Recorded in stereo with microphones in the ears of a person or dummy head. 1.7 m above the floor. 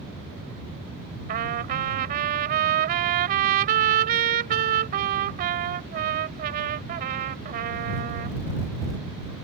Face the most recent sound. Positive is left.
turn(degrees=-50)  # may be behind; listen again after turning